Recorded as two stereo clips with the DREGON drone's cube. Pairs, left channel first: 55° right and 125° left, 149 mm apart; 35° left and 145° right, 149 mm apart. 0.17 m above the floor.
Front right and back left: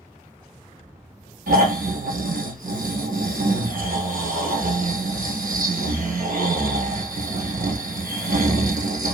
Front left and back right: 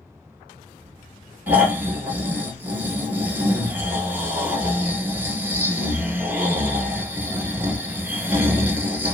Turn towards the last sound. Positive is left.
turn(degrees=135)